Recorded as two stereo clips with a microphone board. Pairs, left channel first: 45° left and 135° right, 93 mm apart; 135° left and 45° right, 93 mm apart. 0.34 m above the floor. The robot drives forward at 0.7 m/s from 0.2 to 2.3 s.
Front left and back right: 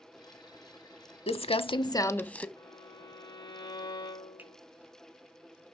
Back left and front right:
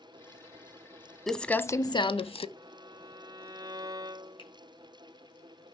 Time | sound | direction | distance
1.3 | crumpling | 50° left | 0.6 m
2.6 | a violin | straight ahead | 0.7 m
4.4 | a finger snap | 155° left | 2.5 m